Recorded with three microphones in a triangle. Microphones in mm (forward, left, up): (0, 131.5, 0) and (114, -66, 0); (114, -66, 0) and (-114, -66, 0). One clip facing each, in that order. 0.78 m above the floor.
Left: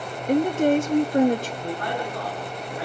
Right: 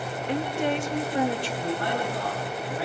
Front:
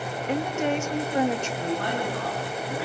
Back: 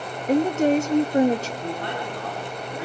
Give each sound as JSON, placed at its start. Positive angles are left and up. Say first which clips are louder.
{"t": 0.3, "sound": "a woman speaking", "louder": "left 8 dB, back 8 dB", "azimuth_deg": 145, "distance_m": 0.7}
{"t": 1.6, "sound": "a man speaking", "louder": "right 1 dB, front 2 dB", "azimuth_deg": 0, "distance_m": 9.5}